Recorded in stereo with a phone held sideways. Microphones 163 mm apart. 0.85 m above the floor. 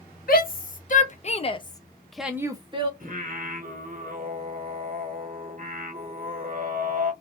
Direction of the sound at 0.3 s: 65° left (ahead or behind).